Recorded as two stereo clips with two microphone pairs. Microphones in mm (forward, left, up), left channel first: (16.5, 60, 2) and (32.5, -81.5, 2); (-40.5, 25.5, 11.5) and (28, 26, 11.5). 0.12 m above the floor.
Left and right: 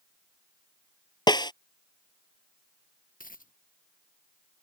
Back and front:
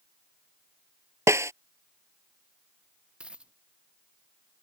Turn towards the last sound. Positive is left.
turn(degrees=75)